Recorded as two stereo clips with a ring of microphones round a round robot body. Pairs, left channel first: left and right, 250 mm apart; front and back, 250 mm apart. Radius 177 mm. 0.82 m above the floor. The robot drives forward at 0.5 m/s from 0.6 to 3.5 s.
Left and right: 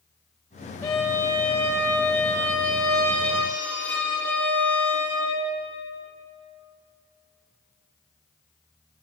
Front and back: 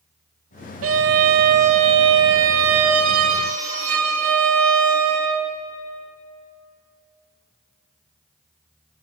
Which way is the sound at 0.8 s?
170° left.